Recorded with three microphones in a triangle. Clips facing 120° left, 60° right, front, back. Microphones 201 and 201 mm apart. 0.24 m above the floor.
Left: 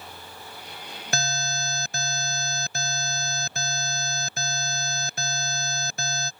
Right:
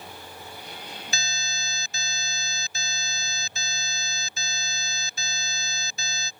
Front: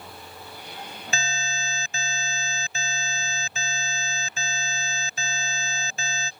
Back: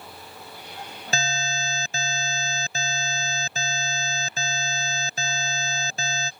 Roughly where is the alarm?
Behind left.